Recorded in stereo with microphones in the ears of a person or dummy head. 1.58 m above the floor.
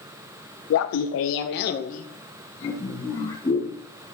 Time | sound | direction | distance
0.7 | laughter | 70° left (ahead or behind) | 0.6 m